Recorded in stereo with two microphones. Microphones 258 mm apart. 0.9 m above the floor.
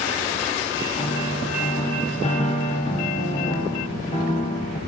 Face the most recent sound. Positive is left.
turn(degrees=25)  # may be behind; listen again after turning